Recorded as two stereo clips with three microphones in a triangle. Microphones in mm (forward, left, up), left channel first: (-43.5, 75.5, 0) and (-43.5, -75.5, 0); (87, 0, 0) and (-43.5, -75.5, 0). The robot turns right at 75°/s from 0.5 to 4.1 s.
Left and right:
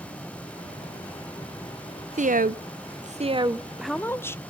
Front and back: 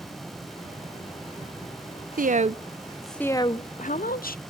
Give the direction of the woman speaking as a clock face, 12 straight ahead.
4 o'clock.